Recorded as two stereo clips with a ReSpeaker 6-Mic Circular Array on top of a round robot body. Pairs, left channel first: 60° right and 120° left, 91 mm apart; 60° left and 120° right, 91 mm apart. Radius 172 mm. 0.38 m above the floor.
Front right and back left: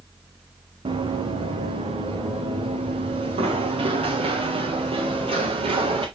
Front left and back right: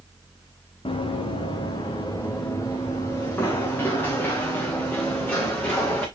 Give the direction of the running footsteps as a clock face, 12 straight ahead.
9 o'clock.